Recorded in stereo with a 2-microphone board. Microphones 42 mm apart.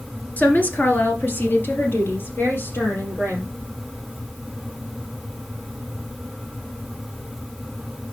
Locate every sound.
0.4 s a woman speaking: 40° left (ahead or behind), 1.7 m; by 3.5 s 60° left (ahead or behind), 3.5 m